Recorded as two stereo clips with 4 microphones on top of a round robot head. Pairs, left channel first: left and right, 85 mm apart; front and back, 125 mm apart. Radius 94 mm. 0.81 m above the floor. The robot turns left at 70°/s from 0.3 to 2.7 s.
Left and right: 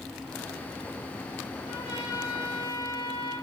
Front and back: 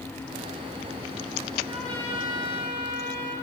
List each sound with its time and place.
1.6 s a trumpet: 95° left, 5 m; by 3.3 s 25° left, 5 m